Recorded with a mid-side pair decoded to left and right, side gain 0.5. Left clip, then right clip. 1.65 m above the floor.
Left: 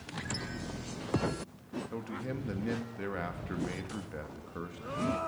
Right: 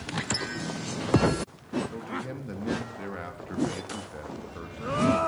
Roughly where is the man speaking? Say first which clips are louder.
Right 4 dB; ahead.